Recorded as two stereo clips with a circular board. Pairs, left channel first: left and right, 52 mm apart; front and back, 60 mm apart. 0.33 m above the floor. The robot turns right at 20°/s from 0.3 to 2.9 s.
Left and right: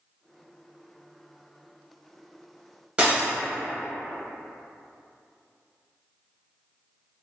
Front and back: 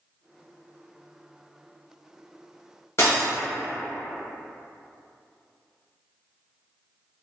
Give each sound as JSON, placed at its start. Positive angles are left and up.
{"t": 3.0, "sound": "breaking glass", "azimuth_deg": -25, "distance_m": 1.1}